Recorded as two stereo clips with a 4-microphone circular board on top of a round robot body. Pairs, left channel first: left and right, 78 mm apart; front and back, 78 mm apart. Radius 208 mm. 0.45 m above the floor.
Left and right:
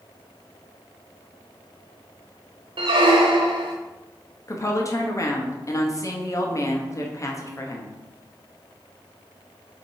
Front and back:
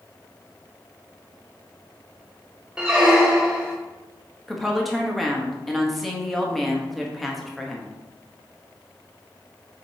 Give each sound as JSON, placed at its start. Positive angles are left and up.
{"t": 2.8, "sound": "a squeak", "azimuth_deg": -100, "distance_m": 0.6}
{"t": 4.5, "sound": "a woman speaking", "azimuth_deg": 90, "distance_m": 1.3}